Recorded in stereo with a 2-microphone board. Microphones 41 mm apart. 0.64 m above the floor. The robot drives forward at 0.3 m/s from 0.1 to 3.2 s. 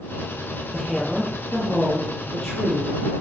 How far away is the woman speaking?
About 0.5 m.